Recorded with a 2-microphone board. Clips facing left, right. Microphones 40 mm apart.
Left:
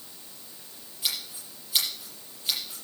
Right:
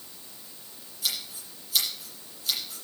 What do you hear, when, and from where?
1.0 s scissors: 30° left (ahead or behind), 7 m